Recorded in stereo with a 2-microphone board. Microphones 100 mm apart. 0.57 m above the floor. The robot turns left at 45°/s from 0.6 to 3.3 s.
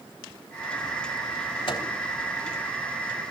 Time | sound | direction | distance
1.7 | a microwave | 60° left (ahead or behind) | 3 m